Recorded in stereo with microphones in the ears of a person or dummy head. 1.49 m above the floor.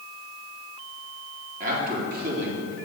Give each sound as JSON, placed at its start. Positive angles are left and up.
{"t": 1.6, "sound": "a man speaking", "side_deg": -40, "distance_m": 3.0}